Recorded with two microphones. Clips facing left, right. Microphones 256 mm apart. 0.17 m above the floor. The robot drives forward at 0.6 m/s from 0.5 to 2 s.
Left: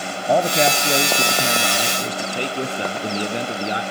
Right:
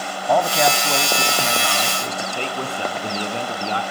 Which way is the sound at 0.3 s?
25° left (ahead or behind).